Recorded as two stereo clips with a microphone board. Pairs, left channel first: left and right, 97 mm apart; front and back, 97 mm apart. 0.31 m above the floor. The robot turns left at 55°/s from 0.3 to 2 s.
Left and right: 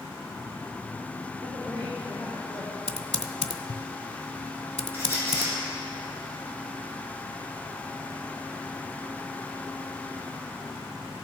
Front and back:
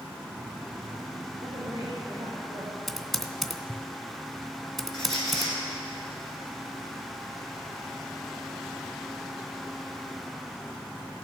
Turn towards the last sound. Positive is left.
turn(degrees=-155)